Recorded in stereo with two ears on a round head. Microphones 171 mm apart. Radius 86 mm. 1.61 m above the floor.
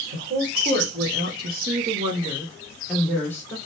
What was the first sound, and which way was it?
A woman speaking, 60° right (ahead or behind).